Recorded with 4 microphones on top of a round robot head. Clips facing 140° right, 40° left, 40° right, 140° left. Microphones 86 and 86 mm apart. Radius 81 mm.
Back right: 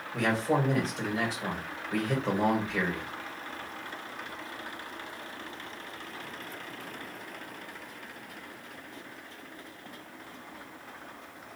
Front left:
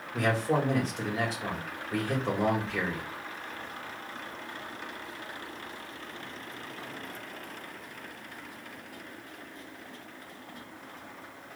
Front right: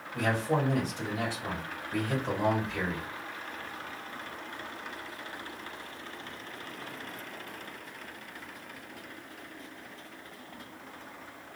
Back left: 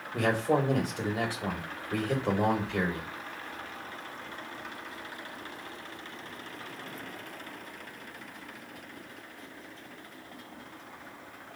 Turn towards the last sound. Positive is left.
turn(degrees=130)